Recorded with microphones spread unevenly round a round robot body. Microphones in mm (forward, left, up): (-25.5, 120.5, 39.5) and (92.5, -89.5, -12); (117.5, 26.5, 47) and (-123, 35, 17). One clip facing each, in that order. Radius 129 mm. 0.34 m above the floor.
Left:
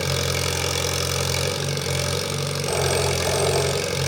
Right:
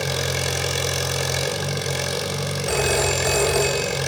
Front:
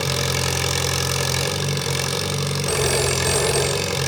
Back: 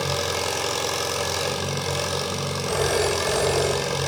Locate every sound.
0.0 s an engine running: 25° left, 0.7 m
2.7 s a phone ringing: 30° right, 1.0 m